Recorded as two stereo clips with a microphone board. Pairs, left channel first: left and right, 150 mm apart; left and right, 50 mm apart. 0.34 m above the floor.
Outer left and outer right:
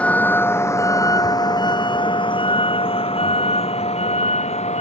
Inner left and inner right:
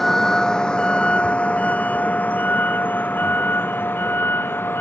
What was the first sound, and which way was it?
A vehicle, 10° left (ahead or behind).